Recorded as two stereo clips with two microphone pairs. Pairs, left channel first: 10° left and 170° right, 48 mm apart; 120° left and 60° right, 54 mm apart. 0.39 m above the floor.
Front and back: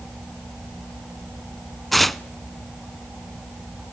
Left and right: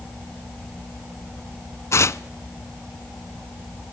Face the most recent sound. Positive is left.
turn(degrees=95)